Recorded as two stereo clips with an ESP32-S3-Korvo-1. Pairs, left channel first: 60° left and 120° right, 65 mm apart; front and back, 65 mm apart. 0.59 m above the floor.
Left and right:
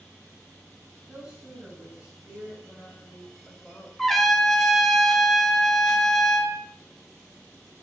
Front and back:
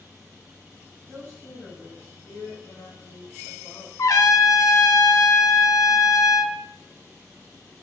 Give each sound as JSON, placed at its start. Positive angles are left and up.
{"t": 1.1, "sound": "a woman speaking", "azimuth_deg": -50, "distance_m": 4.0}
{"t": 4.0, "sound": "a trumpet", "azimuth_deg": -25, "distance_m": 0.8}